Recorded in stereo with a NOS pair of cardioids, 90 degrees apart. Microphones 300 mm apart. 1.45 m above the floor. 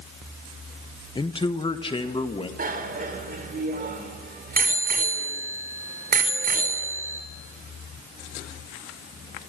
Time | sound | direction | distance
1.1 | a man speaking | 15° left | 1.0 m
2.6 | a bicycle bell | 30° right | 4 m